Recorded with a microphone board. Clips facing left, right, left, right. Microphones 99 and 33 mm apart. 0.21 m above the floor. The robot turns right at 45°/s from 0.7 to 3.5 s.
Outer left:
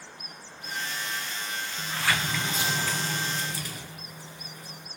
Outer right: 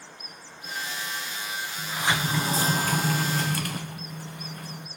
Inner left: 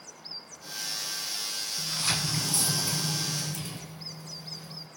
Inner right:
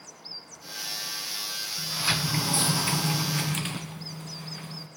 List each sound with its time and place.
1.8 s a sliding door: 170° right, 0.6 m; by 4.9 s 95° right, 0.6 m